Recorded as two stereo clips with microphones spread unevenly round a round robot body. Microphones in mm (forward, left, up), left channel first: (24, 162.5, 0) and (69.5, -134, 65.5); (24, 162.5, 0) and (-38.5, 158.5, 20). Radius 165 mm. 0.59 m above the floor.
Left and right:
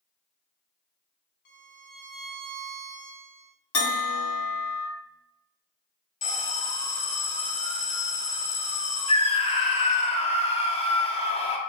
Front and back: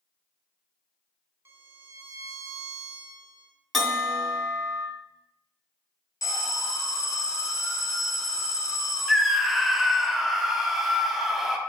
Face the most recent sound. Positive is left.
turn(degrees=70)